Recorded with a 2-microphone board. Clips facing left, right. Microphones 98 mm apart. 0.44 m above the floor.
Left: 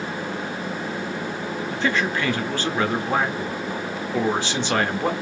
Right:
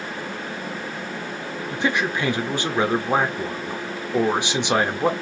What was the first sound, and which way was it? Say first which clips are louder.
A man speaking: right 1 dB; 15° right (ahead or behind).